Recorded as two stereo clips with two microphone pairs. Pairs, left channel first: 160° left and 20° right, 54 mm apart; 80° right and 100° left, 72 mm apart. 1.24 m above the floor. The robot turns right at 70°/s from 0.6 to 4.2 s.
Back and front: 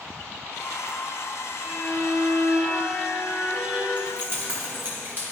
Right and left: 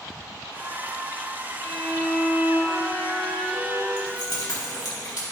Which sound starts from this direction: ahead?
A violin, at 1.6 s.